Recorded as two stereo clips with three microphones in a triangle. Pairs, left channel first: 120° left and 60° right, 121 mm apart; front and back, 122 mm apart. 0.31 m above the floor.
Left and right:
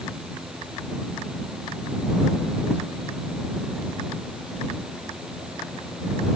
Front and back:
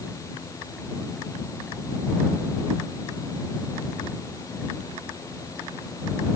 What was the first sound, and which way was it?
Only background noise.